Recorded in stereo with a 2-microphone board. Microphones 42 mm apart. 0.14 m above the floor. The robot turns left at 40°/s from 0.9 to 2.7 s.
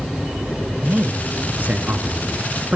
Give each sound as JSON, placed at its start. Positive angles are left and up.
{"t": 0.8, "sound": "a man speaking", "azimuth_deg": -60, "distance_m": 2.0}